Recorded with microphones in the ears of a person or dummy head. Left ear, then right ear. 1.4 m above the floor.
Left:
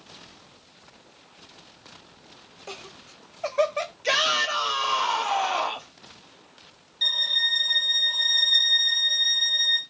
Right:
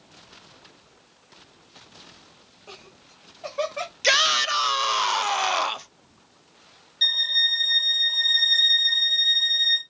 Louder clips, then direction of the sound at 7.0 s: Right 2 dB; 10° right (ahead or behind).